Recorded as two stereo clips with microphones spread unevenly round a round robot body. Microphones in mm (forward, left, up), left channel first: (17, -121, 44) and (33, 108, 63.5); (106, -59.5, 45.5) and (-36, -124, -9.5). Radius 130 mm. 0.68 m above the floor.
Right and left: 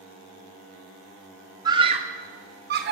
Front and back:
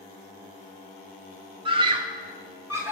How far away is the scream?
About 1.7 m.